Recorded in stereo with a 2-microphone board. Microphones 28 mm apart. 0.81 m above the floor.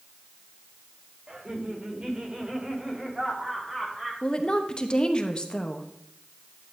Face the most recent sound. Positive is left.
turn(degrees=30)  # may be behind; listen again after turning